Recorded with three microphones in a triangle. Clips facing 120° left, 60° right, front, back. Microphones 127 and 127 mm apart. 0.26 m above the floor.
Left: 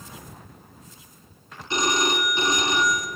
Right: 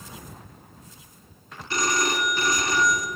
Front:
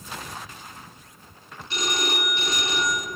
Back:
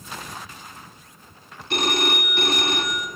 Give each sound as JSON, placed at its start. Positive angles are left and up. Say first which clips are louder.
{"t": 1.7, "sound": "a phone ringing", "louder": "left 2 dB, back 4 dB", "azimuth_deg": -175, "distance_m": 2.0}